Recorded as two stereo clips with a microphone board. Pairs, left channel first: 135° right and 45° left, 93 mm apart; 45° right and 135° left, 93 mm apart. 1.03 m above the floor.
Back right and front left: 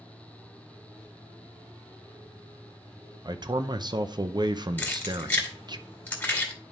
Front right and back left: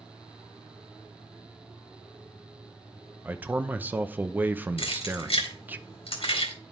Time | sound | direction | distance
3.2 | a man speaking | 70° left | 0.6 m
4.8 | keys jangling | 60° right | 2.5 m